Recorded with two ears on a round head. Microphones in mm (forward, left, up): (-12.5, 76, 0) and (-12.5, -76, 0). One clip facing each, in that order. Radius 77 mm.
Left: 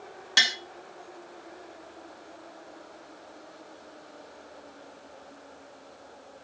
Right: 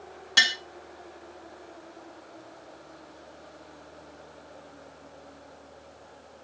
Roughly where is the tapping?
Centre.